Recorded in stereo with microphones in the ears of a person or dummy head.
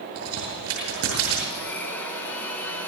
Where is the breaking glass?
No breaking glass in this recording.